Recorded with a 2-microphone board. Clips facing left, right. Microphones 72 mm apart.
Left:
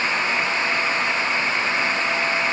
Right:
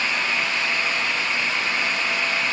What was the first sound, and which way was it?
Only background noise.